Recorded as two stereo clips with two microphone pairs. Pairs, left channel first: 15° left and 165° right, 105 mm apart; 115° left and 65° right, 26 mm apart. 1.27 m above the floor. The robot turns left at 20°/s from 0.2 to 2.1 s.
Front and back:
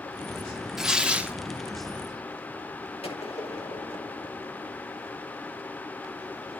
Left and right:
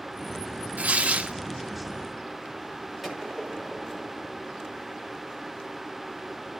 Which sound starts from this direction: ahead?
A gunshot, at 3.0 s.